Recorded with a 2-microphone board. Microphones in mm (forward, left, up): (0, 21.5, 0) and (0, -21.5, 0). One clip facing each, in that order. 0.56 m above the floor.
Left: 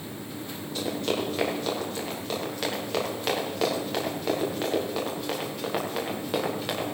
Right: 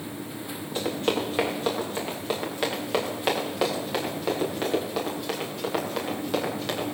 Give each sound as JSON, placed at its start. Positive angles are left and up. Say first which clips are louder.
{"t": 0.8, "sound": "running footsteps", "louder": "right 2 dB", "side_deg": -30, "distance_m": 7.0}